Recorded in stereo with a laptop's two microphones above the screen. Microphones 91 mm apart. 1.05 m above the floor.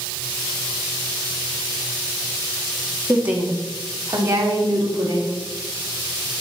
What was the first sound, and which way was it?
A woman speaking, 15° right (ahead or behind).